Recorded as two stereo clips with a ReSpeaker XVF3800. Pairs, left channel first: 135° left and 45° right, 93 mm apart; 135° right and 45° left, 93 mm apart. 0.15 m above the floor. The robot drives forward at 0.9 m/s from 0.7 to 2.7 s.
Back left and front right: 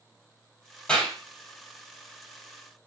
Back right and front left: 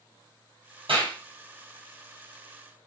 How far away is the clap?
About 3.5 m.